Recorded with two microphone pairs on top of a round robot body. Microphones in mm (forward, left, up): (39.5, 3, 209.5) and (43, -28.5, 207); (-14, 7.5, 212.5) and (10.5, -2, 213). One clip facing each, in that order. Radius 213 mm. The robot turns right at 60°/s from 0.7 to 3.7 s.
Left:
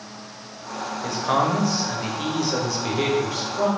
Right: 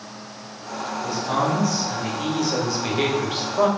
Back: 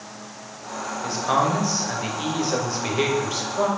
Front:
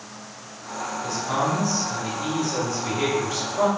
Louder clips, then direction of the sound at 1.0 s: Left 2 dB, back 4 dB; 95° left.